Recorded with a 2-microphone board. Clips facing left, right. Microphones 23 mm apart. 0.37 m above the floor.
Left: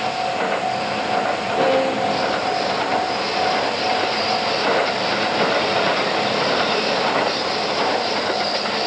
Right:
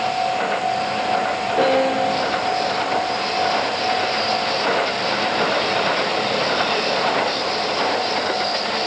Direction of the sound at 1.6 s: 35° right (ahead or behind).